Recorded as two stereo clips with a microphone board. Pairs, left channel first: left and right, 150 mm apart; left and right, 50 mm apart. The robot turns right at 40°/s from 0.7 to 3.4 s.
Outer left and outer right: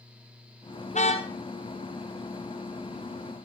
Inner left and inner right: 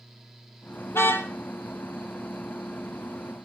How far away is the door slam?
I don't hear a door slam.